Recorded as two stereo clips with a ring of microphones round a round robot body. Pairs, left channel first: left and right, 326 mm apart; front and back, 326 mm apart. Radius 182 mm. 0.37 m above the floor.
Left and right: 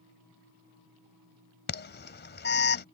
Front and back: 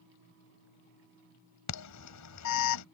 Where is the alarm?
35° left.